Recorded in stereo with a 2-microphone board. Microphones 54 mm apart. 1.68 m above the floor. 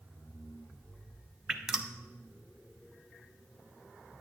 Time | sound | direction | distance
1.5 | dripping | 10° right (ahead or behind) | 0.5 m